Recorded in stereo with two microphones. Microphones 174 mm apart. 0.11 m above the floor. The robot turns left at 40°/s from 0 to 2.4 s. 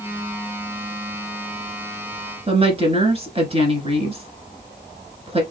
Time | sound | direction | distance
2.5 | a woman speaking | 35° right (ahead or behind) | 1.3 m